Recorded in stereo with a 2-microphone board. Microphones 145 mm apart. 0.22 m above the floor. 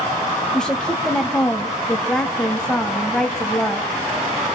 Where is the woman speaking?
5° left (ahead or behind), 1.2 m.